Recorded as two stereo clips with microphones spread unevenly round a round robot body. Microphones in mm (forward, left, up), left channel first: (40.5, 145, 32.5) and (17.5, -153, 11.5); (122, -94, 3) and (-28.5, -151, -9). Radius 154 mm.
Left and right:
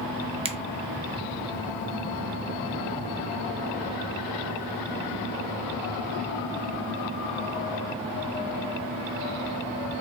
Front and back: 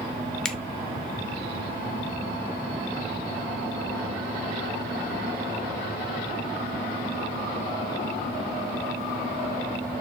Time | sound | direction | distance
0.5 | a finger snap | 70° right | 0.6 m